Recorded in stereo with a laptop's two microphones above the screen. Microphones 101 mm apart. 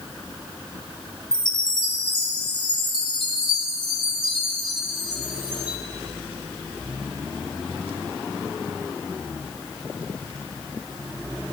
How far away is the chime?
About 1.4 m.